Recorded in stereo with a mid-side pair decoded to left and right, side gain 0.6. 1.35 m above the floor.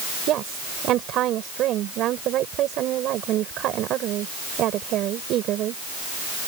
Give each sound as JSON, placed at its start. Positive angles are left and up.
{"t": 0.3, "sound": "a woman speaking", "azimuth_deg": -60}